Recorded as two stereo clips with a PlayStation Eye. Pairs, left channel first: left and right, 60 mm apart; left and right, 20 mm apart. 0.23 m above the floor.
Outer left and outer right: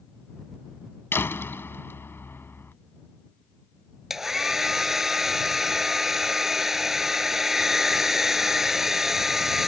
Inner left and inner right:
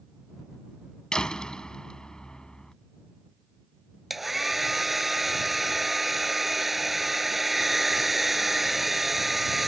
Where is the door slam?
40° left (ahead or behind).